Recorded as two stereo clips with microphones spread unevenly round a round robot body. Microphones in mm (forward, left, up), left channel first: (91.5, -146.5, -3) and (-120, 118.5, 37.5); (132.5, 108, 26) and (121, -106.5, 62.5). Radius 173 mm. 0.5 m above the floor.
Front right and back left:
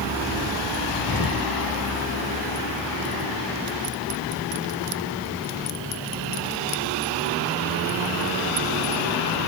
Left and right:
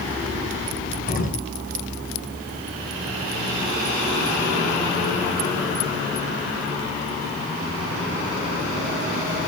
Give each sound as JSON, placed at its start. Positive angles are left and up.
{"t": 1.1, "sound": "an explosion", "azimuth_deg": 40, "distance_m": 4.5}